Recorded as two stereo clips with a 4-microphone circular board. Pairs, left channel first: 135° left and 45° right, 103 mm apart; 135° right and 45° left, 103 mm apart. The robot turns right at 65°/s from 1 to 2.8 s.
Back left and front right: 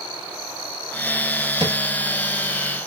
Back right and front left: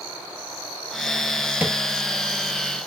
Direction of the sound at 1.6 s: 25° right.